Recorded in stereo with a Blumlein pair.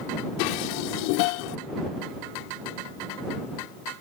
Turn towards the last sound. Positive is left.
turn(degrees=45)